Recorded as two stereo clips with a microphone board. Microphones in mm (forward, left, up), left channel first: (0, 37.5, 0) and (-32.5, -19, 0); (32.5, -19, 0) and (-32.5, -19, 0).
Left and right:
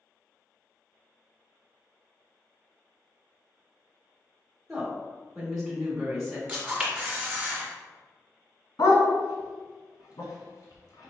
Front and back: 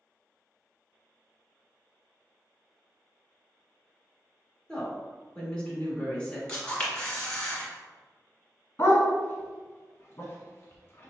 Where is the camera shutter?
60° right, 1.3 m.